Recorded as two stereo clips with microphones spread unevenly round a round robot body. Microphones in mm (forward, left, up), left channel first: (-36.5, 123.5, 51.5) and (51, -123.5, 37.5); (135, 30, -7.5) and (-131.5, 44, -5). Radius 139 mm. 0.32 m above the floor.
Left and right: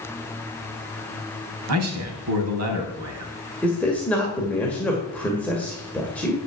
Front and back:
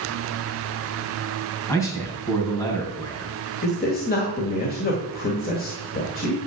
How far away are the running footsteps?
No running footsteps in this recording.